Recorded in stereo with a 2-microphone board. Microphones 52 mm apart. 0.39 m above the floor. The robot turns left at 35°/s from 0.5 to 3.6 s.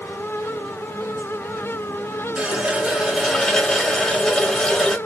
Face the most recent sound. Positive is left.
turn(degrees=170)